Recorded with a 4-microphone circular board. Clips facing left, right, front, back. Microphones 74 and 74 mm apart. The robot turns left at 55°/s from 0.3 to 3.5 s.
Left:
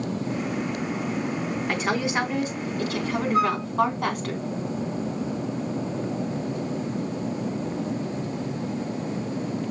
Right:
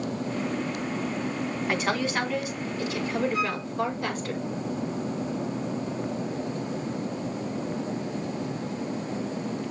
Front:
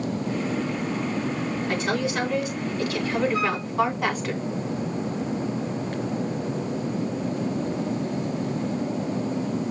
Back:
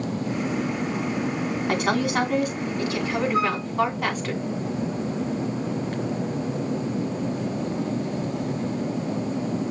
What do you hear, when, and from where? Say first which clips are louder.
1.7 s a woman speaking: left 1 dB, back 4 dB; 170° right, 3 m; by 4.3 s 90° left, 3 m
3.3 s a flute: left 6 dB, back 2 dB; 130° left, 2 m; by 3.6 s 120° left, 2 m